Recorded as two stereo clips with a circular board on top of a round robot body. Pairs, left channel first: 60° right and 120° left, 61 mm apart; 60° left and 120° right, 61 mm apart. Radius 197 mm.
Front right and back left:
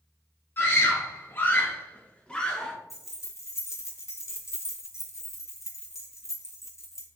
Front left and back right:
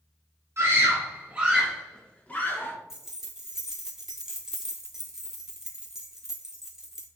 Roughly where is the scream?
Right.